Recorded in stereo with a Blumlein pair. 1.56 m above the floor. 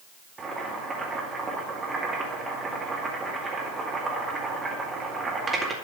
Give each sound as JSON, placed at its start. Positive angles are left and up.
{"t": 0.4, "sound": "boiling", "azimuth_deg": -15, "distance_m": 2.0}